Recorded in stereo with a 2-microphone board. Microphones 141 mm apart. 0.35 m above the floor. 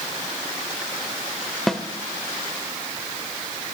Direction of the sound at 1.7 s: Centre (ahead or behind).